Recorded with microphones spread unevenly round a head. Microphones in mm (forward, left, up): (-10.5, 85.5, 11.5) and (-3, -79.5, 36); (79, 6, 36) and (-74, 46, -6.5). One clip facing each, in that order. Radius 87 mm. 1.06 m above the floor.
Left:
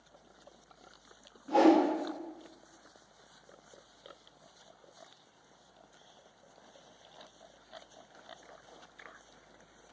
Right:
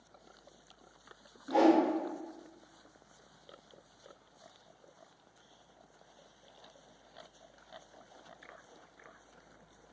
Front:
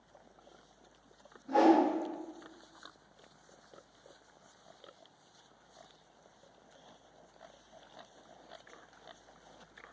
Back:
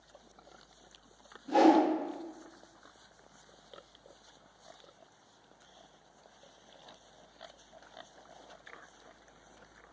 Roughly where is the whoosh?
Behind.